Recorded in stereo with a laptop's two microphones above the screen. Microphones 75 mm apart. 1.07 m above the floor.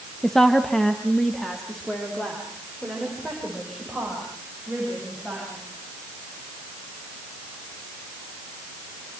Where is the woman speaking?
5° left (ahead or behind), 0.6 m.